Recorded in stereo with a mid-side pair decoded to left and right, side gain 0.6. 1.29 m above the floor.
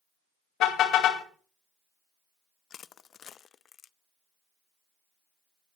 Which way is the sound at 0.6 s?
55° left.